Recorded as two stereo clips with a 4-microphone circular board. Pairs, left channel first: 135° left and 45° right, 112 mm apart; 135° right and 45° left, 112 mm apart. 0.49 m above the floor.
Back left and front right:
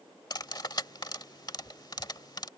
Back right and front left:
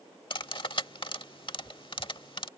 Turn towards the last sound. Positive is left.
turn(degrees=-175)